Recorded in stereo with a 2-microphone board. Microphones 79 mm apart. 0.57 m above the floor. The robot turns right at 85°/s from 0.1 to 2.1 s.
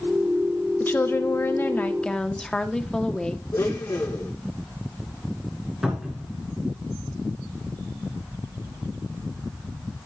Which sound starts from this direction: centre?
A cupboard door, at 5.8 s.